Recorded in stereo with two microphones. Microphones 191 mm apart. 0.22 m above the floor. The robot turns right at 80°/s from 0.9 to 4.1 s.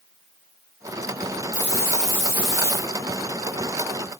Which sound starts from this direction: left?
A hiss, at 1.5 s.